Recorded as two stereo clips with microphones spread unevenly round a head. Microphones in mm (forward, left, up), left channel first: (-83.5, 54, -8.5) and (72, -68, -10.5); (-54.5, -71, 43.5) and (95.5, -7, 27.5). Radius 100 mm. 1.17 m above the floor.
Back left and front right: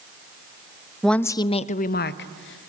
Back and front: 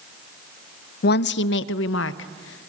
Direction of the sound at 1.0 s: 130° right.